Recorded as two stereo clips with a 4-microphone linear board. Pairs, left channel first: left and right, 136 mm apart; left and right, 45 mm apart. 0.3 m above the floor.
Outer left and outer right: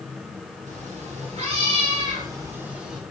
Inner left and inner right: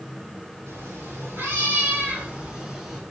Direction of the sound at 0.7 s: 60° right (ahead or behind).